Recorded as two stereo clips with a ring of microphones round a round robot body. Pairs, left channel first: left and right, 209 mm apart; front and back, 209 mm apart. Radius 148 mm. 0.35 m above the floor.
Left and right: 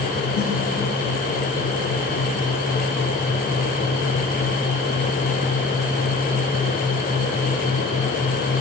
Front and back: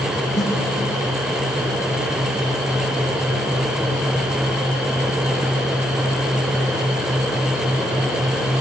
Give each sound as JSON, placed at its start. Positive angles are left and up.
{"t": 0.3, "sound": "a snare drum", "azimuth_deg": 90, "distance_m": 7.0}